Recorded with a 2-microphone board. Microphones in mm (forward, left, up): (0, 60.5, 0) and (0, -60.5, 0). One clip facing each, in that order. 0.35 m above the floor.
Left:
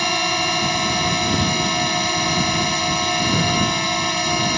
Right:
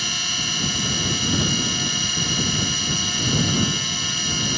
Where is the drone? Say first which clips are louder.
Left 11 dB; 60° left (ahead or behind).